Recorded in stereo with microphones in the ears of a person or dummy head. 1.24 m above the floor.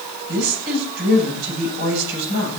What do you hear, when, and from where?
0.3 s a woman speaking: 55° right (ahead or behind), 10 m